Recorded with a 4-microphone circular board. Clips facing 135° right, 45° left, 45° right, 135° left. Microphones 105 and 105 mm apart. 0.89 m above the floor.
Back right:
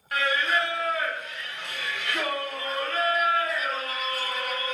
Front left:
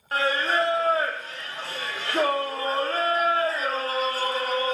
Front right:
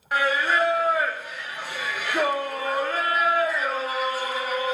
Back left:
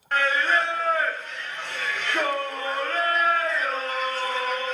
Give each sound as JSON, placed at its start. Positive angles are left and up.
{"t": 0.1, "sound": "singing", "azimuth_deg": 30, "distance_m": 0.6}